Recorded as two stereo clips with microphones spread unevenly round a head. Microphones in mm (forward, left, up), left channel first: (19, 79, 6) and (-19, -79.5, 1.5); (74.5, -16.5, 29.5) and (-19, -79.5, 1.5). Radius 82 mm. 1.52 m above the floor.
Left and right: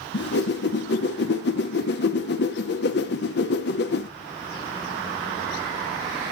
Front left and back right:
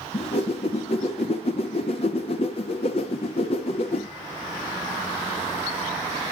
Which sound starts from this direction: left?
A whoosh, at 0.1 s.